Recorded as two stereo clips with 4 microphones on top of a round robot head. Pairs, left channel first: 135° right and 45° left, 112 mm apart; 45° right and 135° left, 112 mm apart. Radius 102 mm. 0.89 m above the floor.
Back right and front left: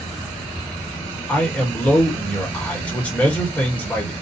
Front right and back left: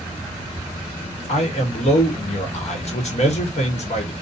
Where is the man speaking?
55° right, 1.2 m.